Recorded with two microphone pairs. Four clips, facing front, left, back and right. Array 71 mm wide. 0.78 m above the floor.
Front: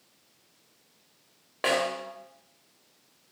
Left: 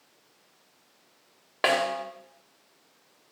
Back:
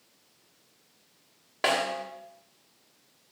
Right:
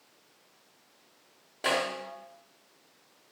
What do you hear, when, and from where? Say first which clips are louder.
1.6 s a snare drum: left 5 dB, even; 95° left, 3.5 m